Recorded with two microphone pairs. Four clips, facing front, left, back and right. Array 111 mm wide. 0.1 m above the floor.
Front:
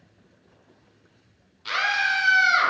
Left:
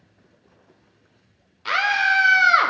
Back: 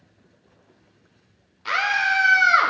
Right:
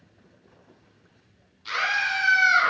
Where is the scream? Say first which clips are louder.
Left 6 dB, back 3 dB; 115° left, 4 m.